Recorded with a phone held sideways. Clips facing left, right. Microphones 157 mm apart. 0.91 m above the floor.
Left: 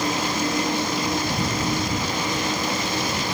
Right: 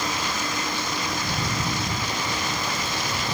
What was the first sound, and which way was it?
A vehicle, 30° left (ahead or behind).